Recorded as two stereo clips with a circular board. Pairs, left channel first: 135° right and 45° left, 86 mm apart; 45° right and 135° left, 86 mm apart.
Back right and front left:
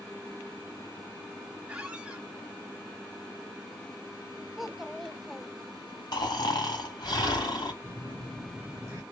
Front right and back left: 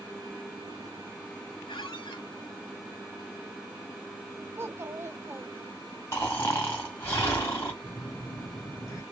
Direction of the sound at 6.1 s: 105° right.